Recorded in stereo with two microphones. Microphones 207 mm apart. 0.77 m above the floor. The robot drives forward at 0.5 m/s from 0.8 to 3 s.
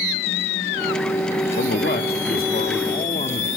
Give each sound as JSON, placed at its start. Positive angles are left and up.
{"t": 1.6, "sound": "a man speaking", "side_deg": 55, "distance_m": 1.2}